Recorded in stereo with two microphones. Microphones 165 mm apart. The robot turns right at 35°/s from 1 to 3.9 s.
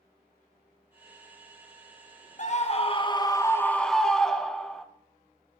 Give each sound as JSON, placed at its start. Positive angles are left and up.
{"t": 2.4, "sound": "a scream", "azimuth_deg": 125, "distance_m": 0.7}